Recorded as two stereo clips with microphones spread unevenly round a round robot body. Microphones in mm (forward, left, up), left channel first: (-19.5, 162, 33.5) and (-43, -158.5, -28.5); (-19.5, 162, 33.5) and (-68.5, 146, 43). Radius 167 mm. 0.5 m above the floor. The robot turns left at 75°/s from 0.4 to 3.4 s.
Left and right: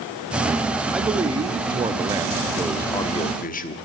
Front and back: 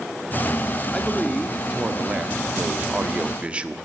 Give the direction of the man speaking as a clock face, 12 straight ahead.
1 o'clock.